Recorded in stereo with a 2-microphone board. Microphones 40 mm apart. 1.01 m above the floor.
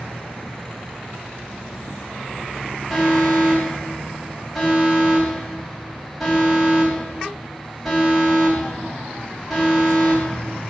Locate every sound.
2.9 s an alarm: centre (ahead or behind), 3.5 m